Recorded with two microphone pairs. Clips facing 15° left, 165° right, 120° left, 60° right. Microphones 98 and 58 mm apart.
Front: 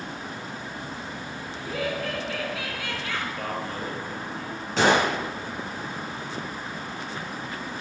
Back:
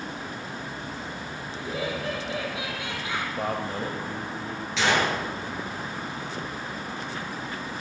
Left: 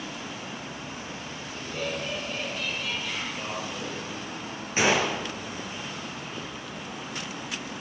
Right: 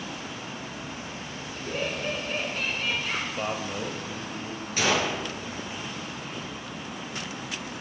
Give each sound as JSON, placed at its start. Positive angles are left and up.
{"t": 1.6, "sound": "laughter", "azimuth_deg": -100, "distance_m": 6.0}
{"t": 3.4, "sound": "a man speaking", "azimuth_deg": -100, "distance_m": 1.6}
{"t": 4.8, "sound": "a gunshot", "azimuth_deg": 60, "distance_m": 4.5}